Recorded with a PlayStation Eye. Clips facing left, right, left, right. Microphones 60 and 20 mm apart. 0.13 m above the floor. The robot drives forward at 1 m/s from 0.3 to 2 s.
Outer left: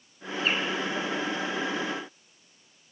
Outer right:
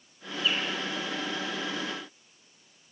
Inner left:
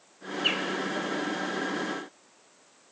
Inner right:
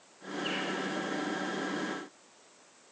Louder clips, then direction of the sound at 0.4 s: Outer left 2 dB, inner left 7 dB; 50° left (ahead or behind).